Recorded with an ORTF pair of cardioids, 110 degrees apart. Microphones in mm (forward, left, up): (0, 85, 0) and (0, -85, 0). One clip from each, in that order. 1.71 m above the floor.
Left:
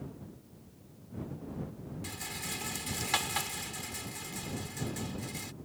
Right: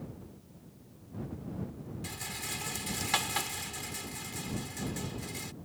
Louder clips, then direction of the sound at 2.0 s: Right 1 dB; 5° right.